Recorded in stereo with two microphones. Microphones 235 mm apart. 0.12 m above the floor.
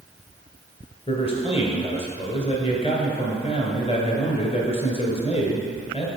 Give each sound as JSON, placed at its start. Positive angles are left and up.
{"t": 1.1, "sound": "a man speaking", "side_deg": 25, "distance_m": 1.4}